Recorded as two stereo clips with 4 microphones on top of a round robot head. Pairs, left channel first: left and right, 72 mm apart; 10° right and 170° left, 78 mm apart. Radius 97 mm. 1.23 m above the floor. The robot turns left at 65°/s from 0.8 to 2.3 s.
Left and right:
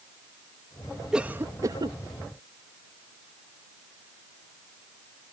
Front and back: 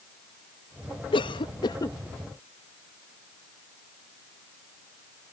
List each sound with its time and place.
1.1 s a cough: 10° right; by 2.0 s 65° right